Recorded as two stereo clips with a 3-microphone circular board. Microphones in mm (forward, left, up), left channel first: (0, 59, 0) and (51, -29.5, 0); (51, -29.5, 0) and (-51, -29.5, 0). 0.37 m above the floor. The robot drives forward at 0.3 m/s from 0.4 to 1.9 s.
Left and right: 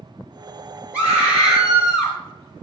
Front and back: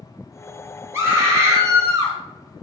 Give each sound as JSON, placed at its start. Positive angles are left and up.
{"t": 0.9, "sound": "a scream", "azimuth_deg": -130, "distance_m": 1.1}